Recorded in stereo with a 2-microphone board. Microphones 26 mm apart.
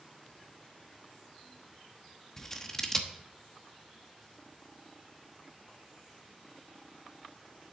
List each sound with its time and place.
2.4 s scissors: 15° left (ahead or behind), 1.0 m